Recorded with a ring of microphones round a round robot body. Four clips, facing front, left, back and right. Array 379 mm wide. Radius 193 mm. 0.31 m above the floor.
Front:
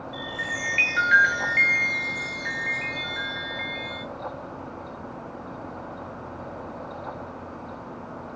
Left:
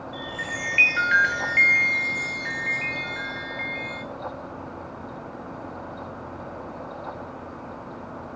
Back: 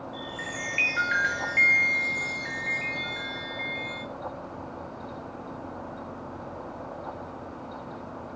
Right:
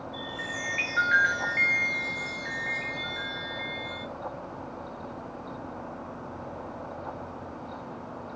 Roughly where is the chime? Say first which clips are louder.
Left 4 dB, front 3 dB; ahead left.